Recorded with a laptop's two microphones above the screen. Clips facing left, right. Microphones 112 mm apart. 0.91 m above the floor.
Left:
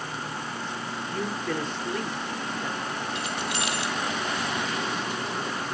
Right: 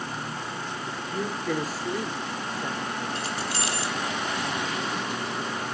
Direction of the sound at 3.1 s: 35° right (ahead or behind).